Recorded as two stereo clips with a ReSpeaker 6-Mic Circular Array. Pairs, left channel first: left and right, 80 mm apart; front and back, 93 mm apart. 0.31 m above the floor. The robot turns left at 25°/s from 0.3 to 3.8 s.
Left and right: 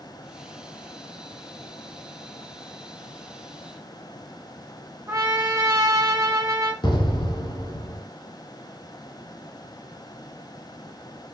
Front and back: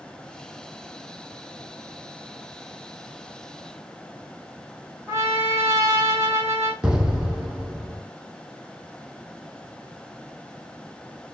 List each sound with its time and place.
5.1 s a trumpet: 130° right, 2.5 m
6.8 s an explosion: 100° left, 1.0 m